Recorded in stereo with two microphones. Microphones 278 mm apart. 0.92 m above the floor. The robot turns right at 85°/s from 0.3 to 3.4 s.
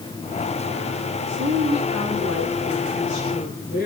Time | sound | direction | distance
1.3 | a woman speaking | 155° right | 8.5 m